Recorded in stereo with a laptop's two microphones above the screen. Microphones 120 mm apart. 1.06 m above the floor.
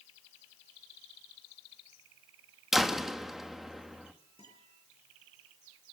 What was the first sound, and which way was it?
A door slam, 5° right (ahead or behind).